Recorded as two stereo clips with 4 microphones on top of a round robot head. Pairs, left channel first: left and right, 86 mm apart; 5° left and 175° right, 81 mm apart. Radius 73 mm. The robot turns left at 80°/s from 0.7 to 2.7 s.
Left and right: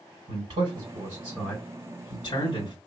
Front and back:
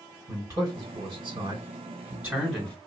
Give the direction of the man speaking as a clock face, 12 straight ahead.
4 o'clock.